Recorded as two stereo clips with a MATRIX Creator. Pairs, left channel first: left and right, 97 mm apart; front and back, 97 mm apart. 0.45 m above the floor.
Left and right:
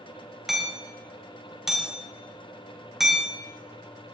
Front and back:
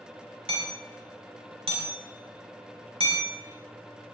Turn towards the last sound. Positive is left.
turn(degrees=-175)